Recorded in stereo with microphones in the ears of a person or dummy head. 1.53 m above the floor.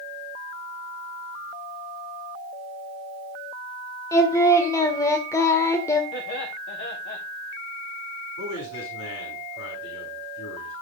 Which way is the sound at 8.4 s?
70° left (ahead or behind).